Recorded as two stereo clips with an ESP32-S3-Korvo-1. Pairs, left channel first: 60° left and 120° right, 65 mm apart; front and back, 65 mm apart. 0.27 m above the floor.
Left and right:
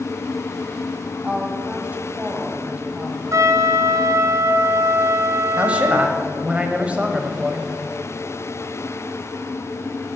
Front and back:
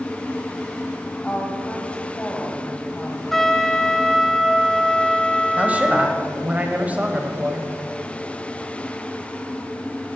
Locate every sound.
1.2 s a woman speaking: 60° right, 1.9 m
3.3 s a trumpet: 85° right, 0.7 m
5.6 s a man speaking: 155° right, 1.4 m